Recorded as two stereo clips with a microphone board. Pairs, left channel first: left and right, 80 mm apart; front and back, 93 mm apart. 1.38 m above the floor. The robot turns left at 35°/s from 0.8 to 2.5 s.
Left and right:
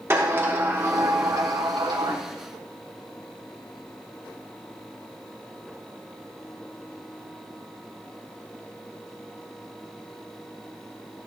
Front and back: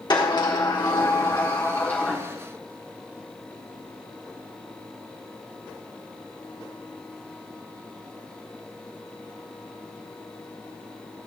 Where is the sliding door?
35° right, 1.3 m; by 2.2 s 85° right, 1.3 m.